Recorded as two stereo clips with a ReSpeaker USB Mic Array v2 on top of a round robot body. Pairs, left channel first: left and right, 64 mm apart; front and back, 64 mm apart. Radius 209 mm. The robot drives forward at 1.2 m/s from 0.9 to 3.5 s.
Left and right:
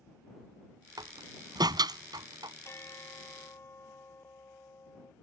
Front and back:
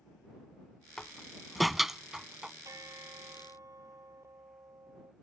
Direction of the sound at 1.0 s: 80° right.